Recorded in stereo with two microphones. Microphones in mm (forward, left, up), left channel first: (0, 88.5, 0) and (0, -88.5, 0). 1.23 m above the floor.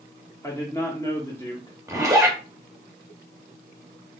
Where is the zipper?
15° right (ahead or behind), 0.8 m.